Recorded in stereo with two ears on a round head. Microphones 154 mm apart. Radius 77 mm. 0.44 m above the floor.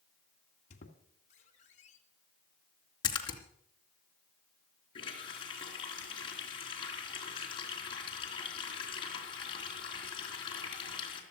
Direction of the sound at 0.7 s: 45° left (ahead or behind).